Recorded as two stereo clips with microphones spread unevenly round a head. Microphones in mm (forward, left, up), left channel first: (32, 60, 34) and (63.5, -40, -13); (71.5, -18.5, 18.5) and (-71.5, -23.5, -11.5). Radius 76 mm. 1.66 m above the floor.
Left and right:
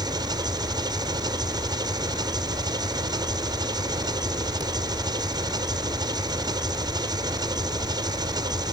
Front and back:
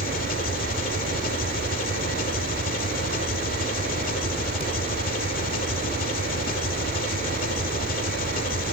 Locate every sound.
0.0 s an engine running: 15° right